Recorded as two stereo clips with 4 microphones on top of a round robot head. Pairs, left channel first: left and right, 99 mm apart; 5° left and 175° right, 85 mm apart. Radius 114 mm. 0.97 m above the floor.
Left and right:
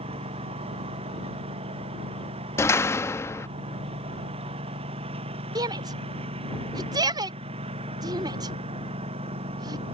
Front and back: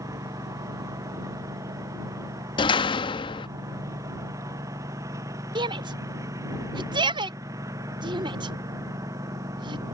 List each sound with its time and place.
0.0 s a lawn mower: 115° right
2.6 s a door slam: 25° left
5.5 s a shout: 140° right